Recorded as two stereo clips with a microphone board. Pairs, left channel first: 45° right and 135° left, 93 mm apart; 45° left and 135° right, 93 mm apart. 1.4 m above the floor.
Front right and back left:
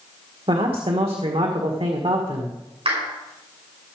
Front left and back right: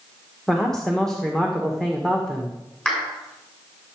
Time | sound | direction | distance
0.5 | a man speaking | 130° left | 1.5 m
2.9 | a clap | 130° left | 5 m